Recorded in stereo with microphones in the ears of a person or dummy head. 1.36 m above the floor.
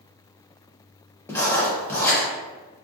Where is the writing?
15° left (ahead or behind), 0.8 m.